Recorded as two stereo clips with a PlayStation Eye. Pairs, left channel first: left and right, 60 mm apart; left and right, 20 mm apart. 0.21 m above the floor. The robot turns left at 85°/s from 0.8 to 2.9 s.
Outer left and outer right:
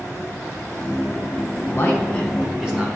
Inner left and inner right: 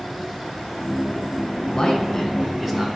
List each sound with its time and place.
1.7 s a man speaking: 65° left, 1.6 m; by 2.9 s 35° right, 1.6 m